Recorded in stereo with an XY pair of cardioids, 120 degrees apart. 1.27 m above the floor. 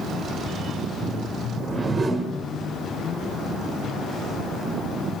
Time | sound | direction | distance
1.5 | a whoosh | 20° right | 1.4 m